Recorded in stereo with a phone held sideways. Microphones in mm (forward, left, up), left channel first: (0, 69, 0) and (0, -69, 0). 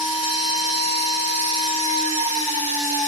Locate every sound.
0.0 s a machine running: 70° right (ahead or behind), 1.6 m